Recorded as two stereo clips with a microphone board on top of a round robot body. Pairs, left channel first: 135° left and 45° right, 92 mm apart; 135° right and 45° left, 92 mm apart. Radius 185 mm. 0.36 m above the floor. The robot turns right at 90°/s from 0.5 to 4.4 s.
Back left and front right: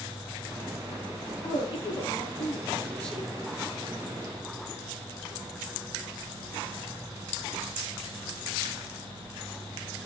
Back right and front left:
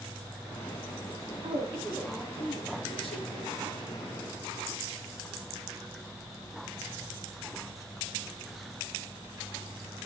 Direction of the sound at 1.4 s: 70° left.